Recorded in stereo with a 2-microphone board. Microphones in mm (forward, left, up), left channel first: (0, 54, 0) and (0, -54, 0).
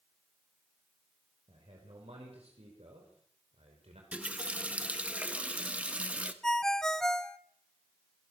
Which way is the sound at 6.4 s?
5° left (ahead or behind).